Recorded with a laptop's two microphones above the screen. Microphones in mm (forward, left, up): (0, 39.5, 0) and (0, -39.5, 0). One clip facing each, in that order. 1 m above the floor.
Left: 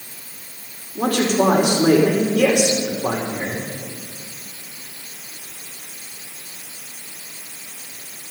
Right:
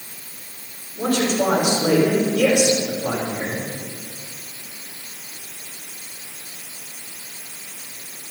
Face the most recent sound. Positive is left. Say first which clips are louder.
# left 2 dB
turn(degrees=65)  # may be behind; listen again after turning